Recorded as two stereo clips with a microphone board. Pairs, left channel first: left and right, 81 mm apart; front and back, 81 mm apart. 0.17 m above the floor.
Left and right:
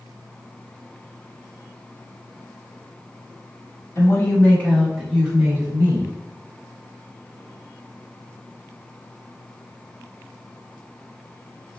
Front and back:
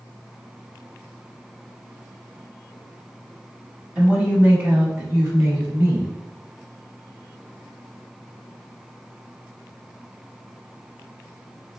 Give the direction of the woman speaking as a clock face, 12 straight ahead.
8 o'clock.